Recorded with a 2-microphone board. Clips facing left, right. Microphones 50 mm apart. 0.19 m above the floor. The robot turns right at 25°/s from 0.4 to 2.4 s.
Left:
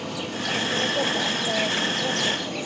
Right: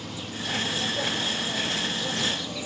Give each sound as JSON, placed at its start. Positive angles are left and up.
{"t": 0.0, "sound": "an insect", "azimuth_deg": 75, "distance_m": 0.9}